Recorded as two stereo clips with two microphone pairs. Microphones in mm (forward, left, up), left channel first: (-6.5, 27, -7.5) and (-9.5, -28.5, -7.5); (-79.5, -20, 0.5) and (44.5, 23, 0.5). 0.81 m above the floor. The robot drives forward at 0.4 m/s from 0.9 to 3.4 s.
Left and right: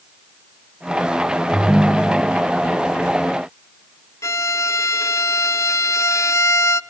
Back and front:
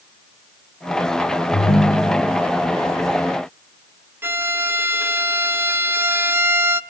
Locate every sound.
1.5 s a ringtone: 160° right, 1.0 m; by 2.4 s 165° right, 1.3 m
4.2 s a violin: 90° left, 0.6 m